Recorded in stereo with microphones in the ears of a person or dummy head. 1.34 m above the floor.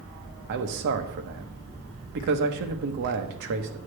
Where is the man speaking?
55° right (ahead or behind), 1.1 m.